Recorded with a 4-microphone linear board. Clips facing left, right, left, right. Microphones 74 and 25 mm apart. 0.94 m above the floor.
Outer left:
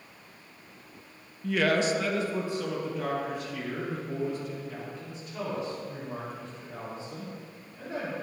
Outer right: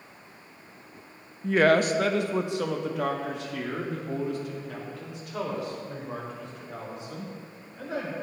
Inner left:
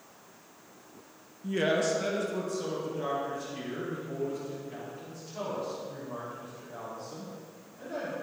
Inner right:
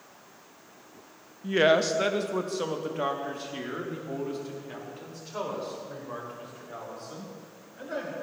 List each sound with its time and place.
1.4 s a woman speaking: 25° right (ahead or behind), 0.6 m; by 8.1 s 80° right, 6 m